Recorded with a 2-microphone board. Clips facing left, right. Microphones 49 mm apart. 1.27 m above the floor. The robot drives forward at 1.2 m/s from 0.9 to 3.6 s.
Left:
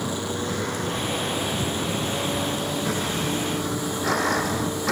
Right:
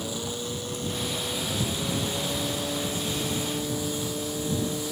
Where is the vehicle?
80° left; by 4.9 s 85° left.